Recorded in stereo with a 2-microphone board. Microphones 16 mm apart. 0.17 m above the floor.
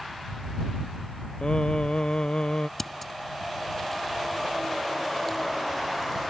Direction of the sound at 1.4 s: 60° left (ahead or behind).